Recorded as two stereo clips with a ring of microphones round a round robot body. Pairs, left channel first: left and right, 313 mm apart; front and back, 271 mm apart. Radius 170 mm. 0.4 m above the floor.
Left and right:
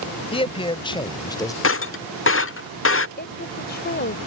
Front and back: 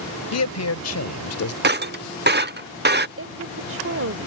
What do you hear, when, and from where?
0.3 s a man speaking: 20° left; by 1.5 s 15° left
1.6 s breaking glass: 135° left
3.2 s a woman speaking: 145° left